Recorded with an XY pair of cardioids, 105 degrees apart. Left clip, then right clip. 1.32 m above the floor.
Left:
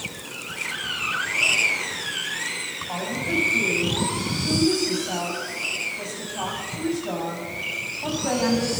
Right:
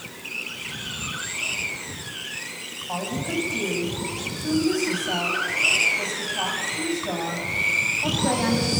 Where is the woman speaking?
10° right, 7.5 m.